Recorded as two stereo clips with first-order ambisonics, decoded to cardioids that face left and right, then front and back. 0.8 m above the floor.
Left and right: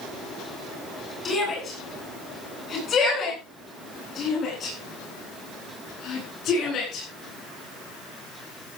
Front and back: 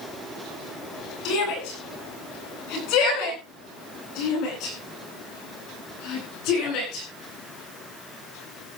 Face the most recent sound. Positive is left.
turn(degrees=40)